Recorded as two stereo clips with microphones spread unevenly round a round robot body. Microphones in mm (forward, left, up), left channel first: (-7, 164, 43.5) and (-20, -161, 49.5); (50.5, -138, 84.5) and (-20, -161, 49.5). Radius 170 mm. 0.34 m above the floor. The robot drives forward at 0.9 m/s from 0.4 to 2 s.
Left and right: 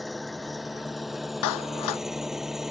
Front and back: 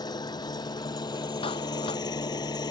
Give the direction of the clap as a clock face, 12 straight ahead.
10 o'clock.